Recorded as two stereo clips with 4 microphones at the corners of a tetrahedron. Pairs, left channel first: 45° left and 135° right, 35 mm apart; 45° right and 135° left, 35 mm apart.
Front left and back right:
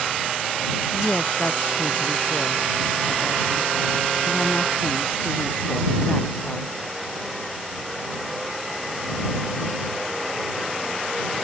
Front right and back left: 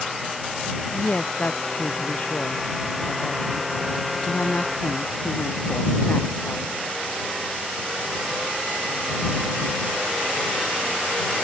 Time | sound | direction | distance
0.9 | a woman speaking | 5° left | ?